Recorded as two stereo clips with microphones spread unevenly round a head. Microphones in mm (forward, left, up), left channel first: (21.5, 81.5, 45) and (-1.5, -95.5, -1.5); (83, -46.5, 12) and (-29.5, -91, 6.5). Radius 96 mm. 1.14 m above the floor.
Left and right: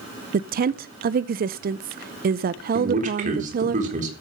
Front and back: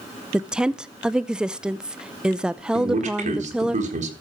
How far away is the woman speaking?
About 0.5 m.